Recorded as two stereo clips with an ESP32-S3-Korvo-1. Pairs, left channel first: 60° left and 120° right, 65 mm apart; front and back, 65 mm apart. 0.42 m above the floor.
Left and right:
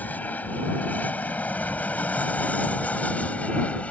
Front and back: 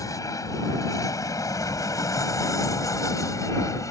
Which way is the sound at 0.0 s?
Straight ahead.